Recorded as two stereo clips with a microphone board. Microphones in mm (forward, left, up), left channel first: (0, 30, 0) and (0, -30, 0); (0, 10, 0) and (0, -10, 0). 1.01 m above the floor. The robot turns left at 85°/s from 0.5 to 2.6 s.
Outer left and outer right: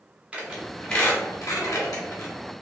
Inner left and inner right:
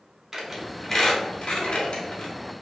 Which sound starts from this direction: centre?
A squeak, at 0.3 s.